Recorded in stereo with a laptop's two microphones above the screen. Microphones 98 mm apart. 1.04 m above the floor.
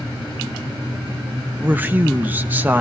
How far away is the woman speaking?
About 1.0 m.